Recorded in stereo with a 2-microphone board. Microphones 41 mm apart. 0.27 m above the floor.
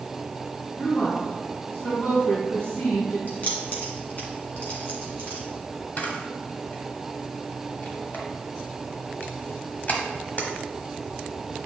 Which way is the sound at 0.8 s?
40° left (ahead or behind).